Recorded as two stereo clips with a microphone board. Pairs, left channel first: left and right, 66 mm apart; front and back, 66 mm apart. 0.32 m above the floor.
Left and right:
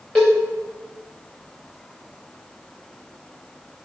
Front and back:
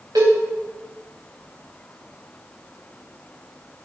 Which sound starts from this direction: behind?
A cowbell, at 0.1 s.